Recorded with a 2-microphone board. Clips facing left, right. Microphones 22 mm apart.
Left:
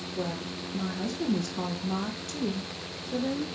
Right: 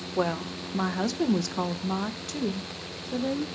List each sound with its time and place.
0.2 s a woman speaking: 85° right, 1.3 m; by 3.5 s 10° right (ahead or behind), 2.5 m